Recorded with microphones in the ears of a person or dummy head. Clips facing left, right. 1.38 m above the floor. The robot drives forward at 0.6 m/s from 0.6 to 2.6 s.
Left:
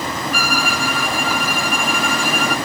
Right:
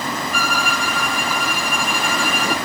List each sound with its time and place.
0.3 s a violin: 5° left (ahead or behind), 0.5 m; by 2.6 s centre (ahead or behind), 1.7 m